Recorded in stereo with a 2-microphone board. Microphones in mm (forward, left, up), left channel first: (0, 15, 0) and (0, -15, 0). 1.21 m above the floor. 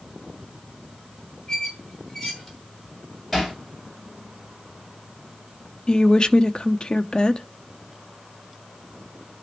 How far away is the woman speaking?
About 0.7 m.